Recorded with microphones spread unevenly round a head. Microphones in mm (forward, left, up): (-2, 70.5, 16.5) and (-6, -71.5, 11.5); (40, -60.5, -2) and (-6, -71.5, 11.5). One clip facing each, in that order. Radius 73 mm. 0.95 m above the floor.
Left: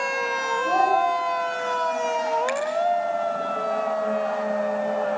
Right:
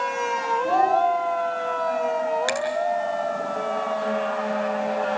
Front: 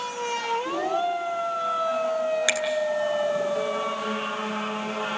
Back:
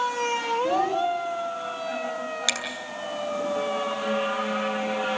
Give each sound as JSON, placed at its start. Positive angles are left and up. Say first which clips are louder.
{"t": 0.6, "sound": "a child speaking", "louder": "even, back 3 dB", "azimuth_deg": -160, "distance_m": 5.5}
{"t": 2.5, "sound": "a finger snap", "louder": "even, front 3 dB", "azimuth_deg": -50, "distance_m": 8.5}